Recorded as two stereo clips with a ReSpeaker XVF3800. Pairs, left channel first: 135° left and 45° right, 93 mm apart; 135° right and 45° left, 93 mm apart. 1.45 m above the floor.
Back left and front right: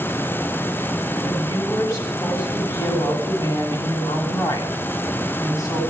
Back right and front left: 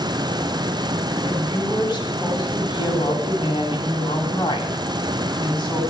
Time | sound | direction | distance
1.2 | a woman speaking | 175° right | 9 m